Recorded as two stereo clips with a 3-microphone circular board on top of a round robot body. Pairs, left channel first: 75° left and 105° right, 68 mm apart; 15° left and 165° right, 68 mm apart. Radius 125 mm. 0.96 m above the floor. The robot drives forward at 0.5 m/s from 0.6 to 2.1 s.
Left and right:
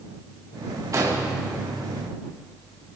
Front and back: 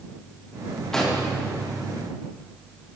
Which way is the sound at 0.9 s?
70° right.